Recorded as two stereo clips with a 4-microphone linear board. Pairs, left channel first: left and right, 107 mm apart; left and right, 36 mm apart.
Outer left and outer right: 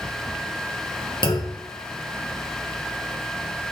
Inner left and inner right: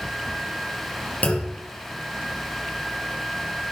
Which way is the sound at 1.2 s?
45° left (ahead or behind).